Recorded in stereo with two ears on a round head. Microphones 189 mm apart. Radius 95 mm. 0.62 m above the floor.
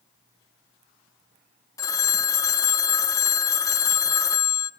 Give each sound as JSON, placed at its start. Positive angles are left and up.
{"t": 1.8, "sound": "a phone ringing", "side_deg": 15, "distance_m": 0.6}